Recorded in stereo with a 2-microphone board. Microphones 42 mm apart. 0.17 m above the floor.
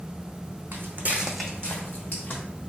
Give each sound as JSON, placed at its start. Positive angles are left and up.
{"t": 0.7, "sound": "footsteps", "side_deg": -65, "distance_m": 0.7}